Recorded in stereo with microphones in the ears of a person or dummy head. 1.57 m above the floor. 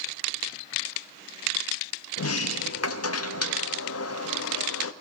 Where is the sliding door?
80° left, 0.6 m.